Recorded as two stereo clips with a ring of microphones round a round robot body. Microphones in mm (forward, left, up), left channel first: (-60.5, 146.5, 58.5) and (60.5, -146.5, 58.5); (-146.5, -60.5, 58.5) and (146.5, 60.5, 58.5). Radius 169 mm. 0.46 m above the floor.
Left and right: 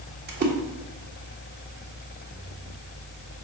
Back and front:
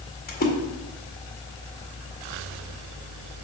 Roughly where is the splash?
Right.